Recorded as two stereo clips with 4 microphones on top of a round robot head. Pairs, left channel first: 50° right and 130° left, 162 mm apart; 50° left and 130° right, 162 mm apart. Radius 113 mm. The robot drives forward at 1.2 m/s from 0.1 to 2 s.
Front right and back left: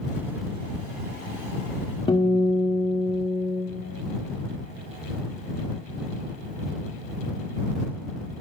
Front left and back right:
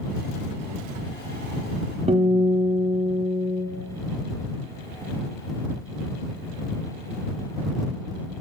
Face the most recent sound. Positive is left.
turn(degrees=-100)